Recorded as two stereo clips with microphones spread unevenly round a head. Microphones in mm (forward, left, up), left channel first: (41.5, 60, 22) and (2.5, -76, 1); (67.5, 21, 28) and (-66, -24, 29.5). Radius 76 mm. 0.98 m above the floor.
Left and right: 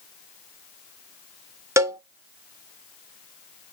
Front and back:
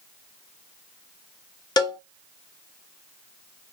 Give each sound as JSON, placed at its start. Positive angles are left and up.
{"t": 1.8, "sound": "a cowbell", "azimuth_deg": -40, "distance_m": 0.5}